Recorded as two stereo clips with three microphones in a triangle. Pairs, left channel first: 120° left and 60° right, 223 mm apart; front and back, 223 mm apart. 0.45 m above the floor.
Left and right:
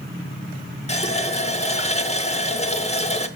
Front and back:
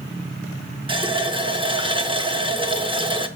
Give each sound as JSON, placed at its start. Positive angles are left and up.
{"t": 0.9, "sound": "a running tap", "azimuth_deg": 140, "distance_m": 0.7}